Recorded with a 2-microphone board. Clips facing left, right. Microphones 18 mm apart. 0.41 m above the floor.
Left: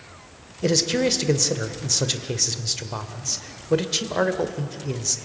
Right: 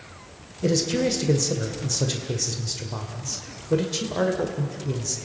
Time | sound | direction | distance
0.6 | a man speaking | 30° left (ahead or behind) | 1.5 m